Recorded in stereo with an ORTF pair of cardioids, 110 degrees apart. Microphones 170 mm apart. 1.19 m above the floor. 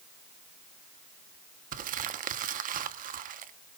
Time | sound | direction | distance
1.7 | crumpling | 55° right | 1.3 m